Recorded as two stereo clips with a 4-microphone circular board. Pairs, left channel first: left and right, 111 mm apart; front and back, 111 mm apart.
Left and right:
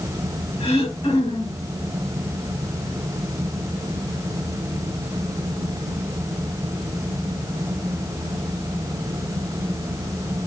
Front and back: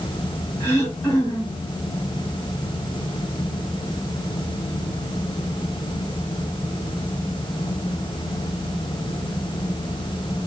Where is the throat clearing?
65° left, 7.5 m.